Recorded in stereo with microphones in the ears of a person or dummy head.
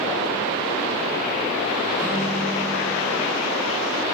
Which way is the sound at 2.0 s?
20° right (ahead or behind).